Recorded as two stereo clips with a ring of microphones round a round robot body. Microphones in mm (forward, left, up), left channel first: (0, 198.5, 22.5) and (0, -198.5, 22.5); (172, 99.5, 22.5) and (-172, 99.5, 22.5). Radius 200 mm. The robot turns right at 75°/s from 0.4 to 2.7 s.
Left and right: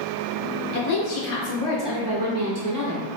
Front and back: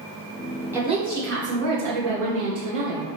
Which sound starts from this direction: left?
A woman speaking, at 0.7 s.